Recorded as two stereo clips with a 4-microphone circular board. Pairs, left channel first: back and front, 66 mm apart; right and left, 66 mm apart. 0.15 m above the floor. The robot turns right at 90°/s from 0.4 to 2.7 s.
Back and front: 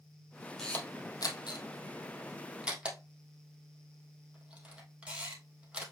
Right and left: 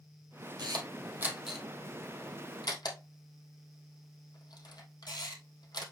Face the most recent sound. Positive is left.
turn(degrees=-75)